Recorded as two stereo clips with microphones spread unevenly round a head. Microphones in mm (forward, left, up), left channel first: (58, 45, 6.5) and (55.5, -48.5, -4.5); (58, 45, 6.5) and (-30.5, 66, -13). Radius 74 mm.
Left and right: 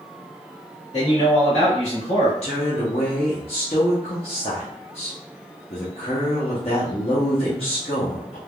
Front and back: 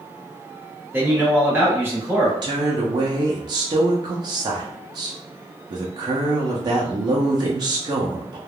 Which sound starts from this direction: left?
A man speaking, at 0.9 s.